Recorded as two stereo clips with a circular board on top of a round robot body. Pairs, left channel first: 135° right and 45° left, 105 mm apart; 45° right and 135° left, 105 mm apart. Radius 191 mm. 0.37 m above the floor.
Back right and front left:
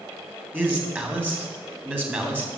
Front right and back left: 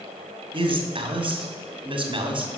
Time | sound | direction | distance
0.5 | a man speaking | 115° left | 2 m